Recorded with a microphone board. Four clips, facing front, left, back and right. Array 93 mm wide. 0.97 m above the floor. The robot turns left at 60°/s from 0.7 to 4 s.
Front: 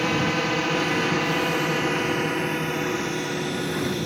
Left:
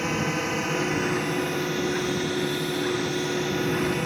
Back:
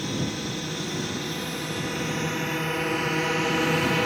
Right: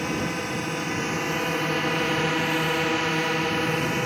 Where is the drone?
5° left; by 4.1 s 160° right.